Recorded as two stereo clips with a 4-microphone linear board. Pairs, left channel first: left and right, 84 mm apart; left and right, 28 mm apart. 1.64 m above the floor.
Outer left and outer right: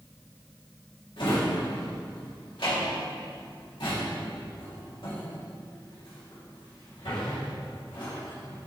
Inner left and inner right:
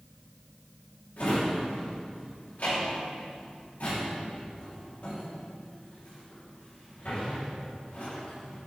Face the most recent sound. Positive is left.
turn(degrees=70)  # may be behind; listen again after turning